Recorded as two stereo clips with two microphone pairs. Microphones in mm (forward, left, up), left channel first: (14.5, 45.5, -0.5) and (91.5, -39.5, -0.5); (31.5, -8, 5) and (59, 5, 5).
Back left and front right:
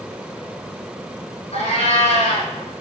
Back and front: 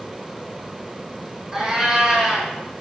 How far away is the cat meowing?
About 2 m.